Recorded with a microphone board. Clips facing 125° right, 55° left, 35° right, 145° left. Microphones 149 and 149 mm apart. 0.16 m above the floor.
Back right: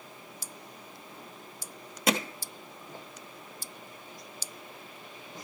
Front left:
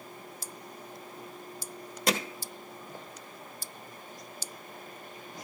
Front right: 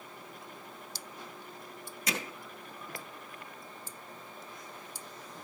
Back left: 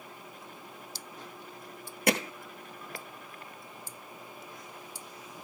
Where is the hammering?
150° left, 1.2 m.